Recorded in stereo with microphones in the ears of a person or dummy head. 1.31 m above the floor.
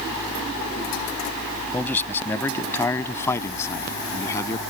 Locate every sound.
1.7 s a man speaking: 10° left (ahead or behind); by 4.6 s 20° left (ahead or behind)